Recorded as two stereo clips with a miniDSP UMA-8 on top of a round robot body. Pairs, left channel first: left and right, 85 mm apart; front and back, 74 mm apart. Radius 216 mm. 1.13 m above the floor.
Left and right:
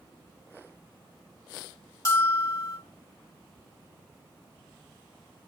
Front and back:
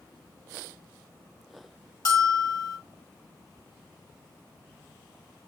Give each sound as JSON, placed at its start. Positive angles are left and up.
{"t": 2.0, "sound": "a bell", "azimuth_deg": 40, "distance_m": 1.7}